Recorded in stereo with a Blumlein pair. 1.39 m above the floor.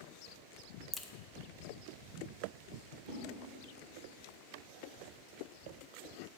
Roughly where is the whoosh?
Ahead right.